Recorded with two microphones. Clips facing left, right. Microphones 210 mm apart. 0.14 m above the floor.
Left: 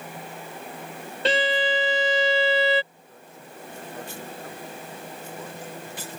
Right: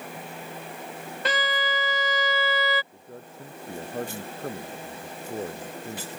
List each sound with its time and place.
1.2 s a violin: 30° left (ahead or behind)
2.9 s a man speaking: 45° right (ahead or behind)